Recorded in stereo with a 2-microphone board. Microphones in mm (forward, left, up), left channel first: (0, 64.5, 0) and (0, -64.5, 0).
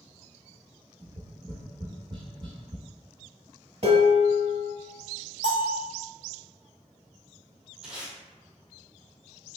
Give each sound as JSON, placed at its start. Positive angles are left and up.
{"t": 1.0, "sound": "tapping", "side_deg": -40, "distance_m": 1.1}
{"t": 3.8, "sound": "dishes clattering", "side_deg": -50, "distance_m": 1.6}
{"t": 5.4, "sound": "a bell", "side_deg": -50, "distance_m": 1.0}
{"t": 7.8, "sound": "tape being pulled", "side_deg": -5, "distance_m": 1.3}